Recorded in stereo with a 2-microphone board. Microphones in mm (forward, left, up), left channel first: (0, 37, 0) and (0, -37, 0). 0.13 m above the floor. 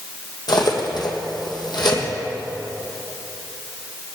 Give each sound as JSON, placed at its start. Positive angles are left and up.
{"t": 0.5, "sound": "cutlery clinking", "side_deg": 70, "distance_m": 3.0}